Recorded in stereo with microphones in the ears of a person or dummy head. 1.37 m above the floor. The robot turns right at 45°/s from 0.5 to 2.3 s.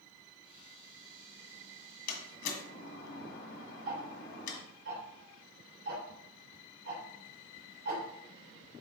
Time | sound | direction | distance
2.1 | a door slam | 65° left (ahead or behind) | 1.6 m
3.9 | ticking | 75° right (ahead or behind) | 3 m